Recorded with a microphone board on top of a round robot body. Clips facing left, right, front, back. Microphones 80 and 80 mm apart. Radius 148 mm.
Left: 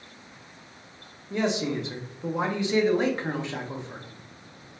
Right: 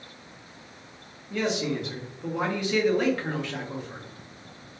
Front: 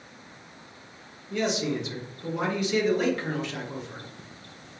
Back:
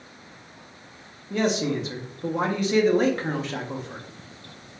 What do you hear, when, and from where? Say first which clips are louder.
1.3 s a man speaking: left 1 dB, back 3 dB; 150° left, 0.9 m